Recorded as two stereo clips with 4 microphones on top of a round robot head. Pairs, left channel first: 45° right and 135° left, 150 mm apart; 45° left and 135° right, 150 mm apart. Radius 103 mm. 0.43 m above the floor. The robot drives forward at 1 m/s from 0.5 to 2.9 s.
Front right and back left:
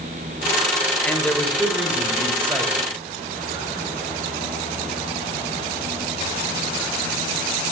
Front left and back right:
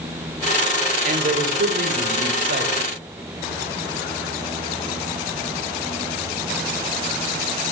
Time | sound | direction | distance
1.1 | a man speaking | 120° right | 2 m